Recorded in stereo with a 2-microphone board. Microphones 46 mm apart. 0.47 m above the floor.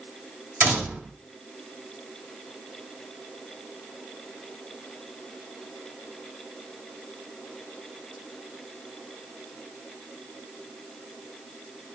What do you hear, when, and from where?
0.6 s a door slam: 50° right (ahead or behind), 2.5 m